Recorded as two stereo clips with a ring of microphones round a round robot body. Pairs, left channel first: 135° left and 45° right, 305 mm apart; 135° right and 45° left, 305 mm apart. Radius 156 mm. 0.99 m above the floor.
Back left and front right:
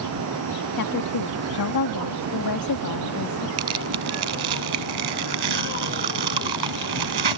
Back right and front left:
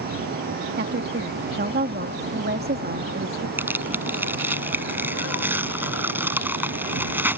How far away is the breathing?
I don't hear breathing.